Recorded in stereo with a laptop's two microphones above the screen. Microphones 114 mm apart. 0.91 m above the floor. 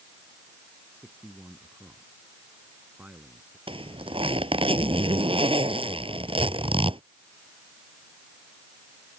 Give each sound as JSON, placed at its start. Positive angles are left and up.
{"t": 0.9, "sound": "a man speaking", "side_deg": -15}
{"t": 3.7, "sound": "a zipper", "side_deg": -55}